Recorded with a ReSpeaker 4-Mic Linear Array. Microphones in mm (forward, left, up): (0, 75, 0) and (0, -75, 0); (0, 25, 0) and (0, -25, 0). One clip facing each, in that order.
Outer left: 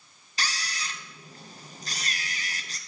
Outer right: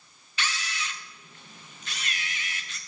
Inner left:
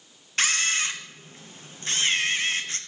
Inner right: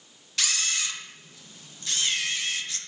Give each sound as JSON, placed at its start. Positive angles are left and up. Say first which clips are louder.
{"t": 0.4, "sound": "a camera shutter", "louder": "outer right 1 dB, inner left 5 dB", "side_deg": 35, "distance_m": 0.8}